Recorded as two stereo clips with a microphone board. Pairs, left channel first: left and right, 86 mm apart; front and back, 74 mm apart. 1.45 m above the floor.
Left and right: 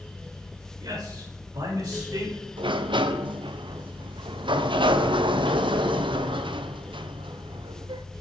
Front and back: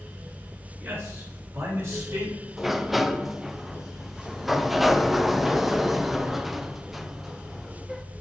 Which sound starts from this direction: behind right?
A man speaking, at 0.8 s.